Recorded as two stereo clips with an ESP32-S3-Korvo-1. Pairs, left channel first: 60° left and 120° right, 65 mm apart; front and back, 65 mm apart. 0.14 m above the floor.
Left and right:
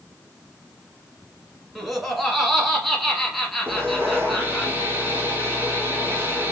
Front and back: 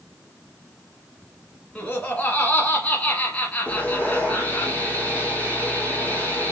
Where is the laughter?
30° right, 1.1 m.